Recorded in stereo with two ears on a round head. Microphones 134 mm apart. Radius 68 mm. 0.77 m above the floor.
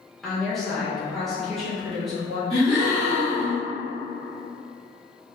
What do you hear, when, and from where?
0.2 s a woman speaking: centre (ahead or behind), 0.7 m
2.5 s a gasp: 25° right (ahead or behind), 1.6 m